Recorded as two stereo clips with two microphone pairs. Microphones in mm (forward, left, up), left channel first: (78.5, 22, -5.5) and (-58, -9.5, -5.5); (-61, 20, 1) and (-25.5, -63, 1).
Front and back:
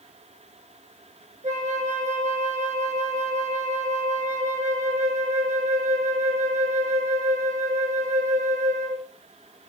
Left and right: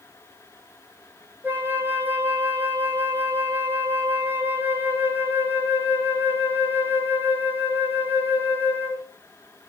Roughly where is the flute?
Behind right.